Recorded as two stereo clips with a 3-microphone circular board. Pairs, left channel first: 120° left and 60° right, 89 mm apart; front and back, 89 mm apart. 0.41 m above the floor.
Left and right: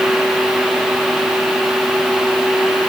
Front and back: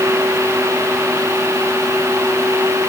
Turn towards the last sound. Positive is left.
No sound to turn to.